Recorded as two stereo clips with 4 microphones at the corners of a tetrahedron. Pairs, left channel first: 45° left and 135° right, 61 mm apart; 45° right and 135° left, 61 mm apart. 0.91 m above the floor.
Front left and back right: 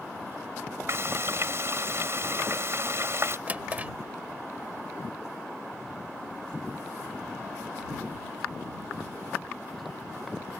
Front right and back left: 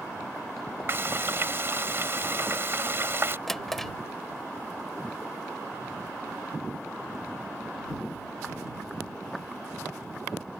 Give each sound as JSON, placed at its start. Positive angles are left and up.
{"t": 0.9, "sound": "frying", "azimuth_deg": -175}
{"t": 3.5, "sound": "a drawer", "azimuth_deg": -125}